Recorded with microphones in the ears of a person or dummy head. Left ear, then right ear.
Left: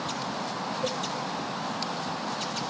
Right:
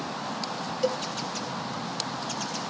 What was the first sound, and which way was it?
A cowbell, 80° right.